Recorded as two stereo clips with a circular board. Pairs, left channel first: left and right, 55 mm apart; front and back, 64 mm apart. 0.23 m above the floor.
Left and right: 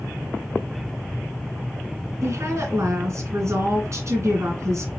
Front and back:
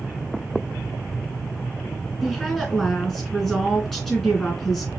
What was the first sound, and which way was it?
A woman speaking, 85° right.